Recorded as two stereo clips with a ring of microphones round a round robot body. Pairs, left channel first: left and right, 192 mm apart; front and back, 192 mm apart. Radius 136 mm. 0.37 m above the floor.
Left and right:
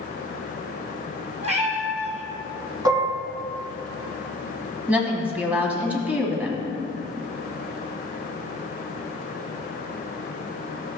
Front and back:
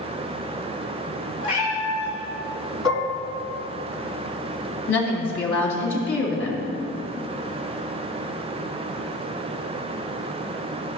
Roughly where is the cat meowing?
Ahead right.